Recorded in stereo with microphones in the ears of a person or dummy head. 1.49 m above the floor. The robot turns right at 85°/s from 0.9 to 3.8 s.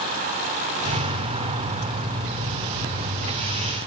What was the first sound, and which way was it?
Only background noise.